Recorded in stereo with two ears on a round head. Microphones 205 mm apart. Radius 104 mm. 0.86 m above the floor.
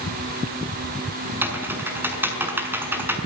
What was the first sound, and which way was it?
Typing on a keyboard, 10° right (ahead or behind).